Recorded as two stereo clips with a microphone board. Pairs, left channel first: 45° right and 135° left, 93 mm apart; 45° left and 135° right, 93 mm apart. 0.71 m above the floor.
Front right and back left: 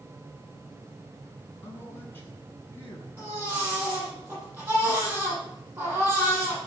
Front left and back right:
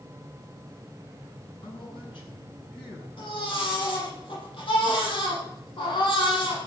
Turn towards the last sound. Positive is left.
turn(degrees=65)